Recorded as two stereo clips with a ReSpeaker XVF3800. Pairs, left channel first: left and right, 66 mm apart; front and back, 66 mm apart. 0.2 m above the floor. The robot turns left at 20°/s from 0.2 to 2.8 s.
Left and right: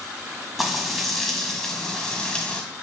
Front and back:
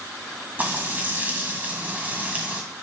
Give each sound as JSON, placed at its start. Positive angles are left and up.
{"t": 0.6, "sound": "frying", "azimuth_deg": -175, "distance_m": 1.4}